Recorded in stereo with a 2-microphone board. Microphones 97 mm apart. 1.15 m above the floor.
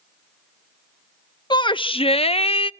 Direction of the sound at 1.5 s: 50° left (ahead or behind).